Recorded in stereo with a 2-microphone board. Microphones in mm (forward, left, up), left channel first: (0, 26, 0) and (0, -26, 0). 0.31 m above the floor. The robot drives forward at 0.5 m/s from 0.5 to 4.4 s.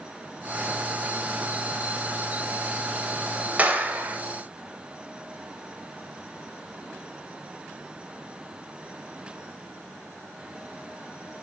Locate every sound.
3.6 s a clap: 30° right (ahead or behind), 1.0 m